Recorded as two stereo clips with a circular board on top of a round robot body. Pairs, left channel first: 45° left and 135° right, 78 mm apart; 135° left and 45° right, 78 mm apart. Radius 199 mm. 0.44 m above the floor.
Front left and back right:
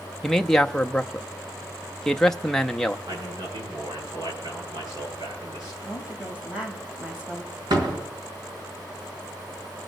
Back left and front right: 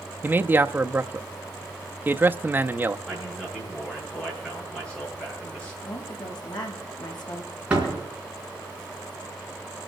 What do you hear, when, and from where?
0.2 s a man speaking: 30° right, 0.8 m
3.1 s a man speaking: 145° right, 10 m
5.8 s a woman speaking: 150° left, 4 m
7.7 s a door slam: 120° right, 4.5 m